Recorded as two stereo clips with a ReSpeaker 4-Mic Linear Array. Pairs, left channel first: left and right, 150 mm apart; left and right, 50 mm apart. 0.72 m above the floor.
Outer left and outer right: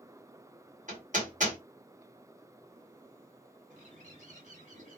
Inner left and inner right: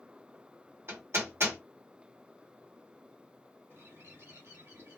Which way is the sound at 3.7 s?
55° right (ahead or behind).